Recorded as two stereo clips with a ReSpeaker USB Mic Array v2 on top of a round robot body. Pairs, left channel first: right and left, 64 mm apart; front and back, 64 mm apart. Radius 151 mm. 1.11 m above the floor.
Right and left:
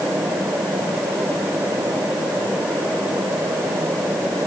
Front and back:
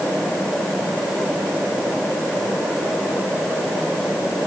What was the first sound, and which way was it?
Only background noise.